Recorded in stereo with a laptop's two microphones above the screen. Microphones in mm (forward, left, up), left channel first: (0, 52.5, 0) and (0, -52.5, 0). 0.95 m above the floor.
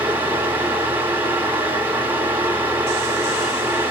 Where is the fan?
20° right (ahead or behind), 2 m.